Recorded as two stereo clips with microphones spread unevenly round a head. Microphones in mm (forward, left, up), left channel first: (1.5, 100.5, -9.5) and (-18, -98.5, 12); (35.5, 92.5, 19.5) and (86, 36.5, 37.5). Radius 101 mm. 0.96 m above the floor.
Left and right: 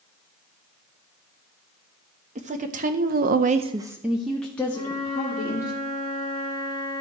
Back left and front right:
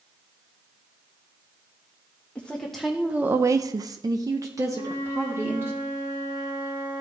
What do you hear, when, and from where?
2.4 s a woman speaking: 155° right, 1.2 m; by 5.7 s 10° left, 2 m
4.7 s a flute: 75° right, 4.5 m